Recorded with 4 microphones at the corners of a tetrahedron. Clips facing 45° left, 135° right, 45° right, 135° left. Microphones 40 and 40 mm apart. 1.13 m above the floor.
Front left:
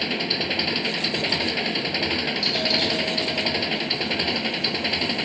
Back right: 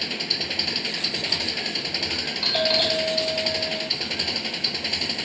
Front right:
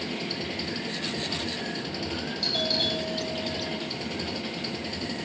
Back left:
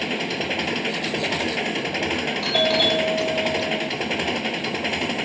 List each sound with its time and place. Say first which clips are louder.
0.0 s an engine running: front left 4 dB, back left 7 dB; 115° left
2.4 s a doorbell: back right 5 dB, back left 8 dB; 165° left